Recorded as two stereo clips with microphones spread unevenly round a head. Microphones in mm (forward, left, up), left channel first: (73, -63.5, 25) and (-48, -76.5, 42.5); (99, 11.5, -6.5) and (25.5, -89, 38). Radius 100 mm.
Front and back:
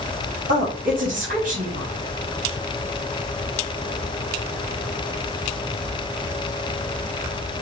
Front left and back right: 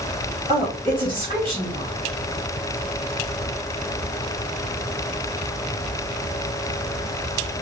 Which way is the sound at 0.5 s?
160° left.